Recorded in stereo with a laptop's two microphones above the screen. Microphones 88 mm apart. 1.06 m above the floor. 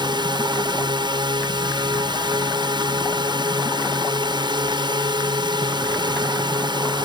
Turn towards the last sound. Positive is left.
turn(degrees=-60)  # may be behind; listen again after turning